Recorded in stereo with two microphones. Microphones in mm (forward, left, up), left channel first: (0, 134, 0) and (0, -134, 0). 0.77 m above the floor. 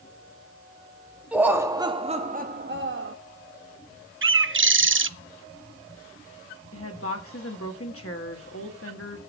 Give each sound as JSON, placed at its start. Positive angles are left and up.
{"t": 1.3, "sound": "laughter", "side_deg": -5, "distance_m": 1.1}
{"t": 4.2, "sound": "a bird", "side_deg": -50, "distance_m": 0.5}
{"t": 6.7, "sound": "a woman speaking", "side_deg": 55, "distance_m": 1.9}